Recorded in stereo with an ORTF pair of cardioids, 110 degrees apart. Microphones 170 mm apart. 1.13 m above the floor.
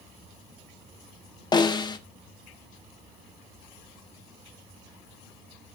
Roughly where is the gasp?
I don't hear a gasp.